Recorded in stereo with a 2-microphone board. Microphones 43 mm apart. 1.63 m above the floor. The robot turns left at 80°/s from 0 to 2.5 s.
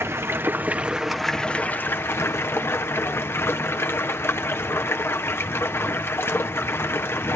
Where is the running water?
85° right, 1.1 m; by 7.4 s 75° left, 1.1 m.